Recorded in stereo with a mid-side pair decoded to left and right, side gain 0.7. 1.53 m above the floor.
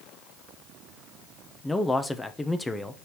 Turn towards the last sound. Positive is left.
turn(degrees=10)